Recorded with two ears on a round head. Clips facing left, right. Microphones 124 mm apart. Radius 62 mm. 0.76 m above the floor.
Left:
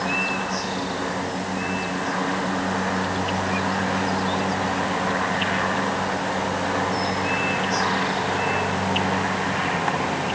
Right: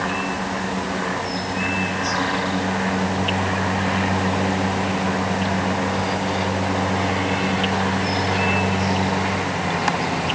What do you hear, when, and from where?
Only background noise.